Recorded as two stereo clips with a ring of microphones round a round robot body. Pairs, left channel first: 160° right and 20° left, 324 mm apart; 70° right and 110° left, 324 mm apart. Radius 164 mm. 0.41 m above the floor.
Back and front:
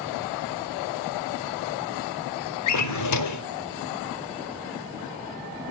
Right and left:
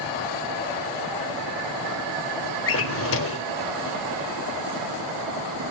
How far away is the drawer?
About 0.5 m.